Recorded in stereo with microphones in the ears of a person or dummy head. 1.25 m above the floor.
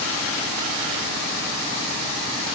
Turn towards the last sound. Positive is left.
No sound to turn to.